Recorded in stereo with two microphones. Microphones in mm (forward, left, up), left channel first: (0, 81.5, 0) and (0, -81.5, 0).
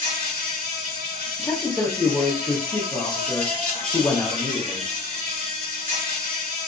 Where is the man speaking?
15° left (ahead or behind), 0.7 m.